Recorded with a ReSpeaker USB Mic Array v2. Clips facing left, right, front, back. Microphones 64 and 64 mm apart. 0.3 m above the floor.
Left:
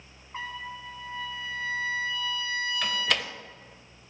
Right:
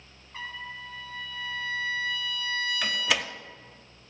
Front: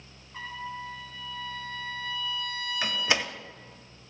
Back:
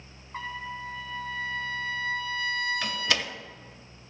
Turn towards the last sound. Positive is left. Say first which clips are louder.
# right 1 dB, front 1 dB
turn(degrees=-15)